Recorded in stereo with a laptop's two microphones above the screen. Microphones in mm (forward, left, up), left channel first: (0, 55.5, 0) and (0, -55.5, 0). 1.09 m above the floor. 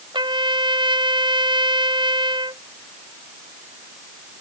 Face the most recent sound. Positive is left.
turn(degrees=-45)  # may be behind; listen again after turning